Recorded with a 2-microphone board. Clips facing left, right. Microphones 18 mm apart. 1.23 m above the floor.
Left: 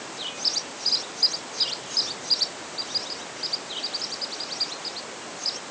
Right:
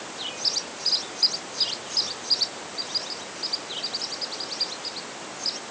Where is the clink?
I don't hear a clink.